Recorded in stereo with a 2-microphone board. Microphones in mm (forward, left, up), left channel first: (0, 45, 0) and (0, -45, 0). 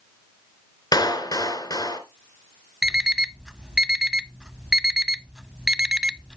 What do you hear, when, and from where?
0.9 s a clap: 45° left (ahead or behind), 2.0 m
2.8 s an alarm clock: 10° right (ahead or behind), 0.5 m